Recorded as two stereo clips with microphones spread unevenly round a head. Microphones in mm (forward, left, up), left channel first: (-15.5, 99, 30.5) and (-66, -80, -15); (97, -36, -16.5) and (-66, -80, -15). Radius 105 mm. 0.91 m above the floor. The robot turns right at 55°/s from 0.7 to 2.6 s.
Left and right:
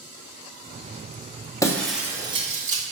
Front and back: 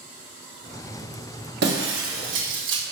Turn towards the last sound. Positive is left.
turn(degrees=-155)